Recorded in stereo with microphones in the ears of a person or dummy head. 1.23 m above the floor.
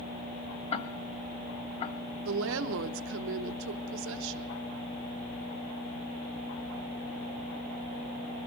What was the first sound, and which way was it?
Ticking, 35° left (ahead or behind).